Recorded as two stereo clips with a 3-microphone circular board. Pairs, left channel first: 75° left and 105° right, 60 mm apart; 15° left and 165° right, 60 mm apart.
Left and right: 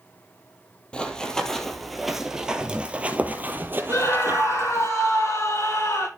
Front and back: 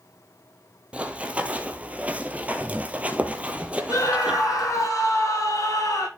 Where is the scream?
45° left, 6.5 m.